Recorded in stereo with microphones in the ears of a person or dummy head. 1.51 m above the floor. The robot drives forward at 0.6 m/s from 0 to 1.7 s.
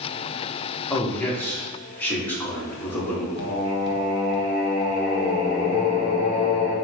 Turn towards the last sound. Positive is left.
turn(degrees=60)  # may be behind; listen again after turning